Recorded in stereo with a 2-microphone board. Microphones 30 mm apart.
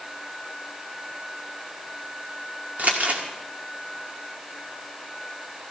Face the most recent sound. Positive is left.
turn(degrees=-55)  # may be behind; listen again after turning